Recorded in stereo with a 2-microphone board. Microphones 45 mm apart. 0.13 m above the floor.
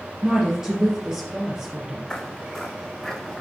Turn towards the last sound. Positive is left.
turn(degrees=10)  # may be behind; listen again after turning